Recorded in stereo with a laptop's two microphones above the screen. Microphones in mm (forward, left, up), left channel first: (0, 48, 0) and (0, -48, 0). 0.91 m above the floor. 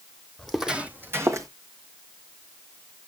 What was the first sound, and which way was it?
Footsteps, 5° left (ahead or behind).